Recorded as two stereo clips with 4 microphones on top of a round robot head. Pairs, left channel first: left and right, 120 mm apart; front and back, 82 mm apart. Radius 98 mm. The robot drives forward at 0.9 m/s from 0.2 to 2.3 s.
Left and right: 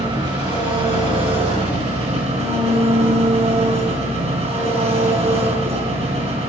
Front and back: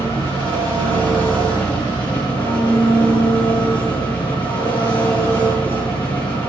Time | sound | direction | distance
0.0 | an engine running | 40° right | 6 m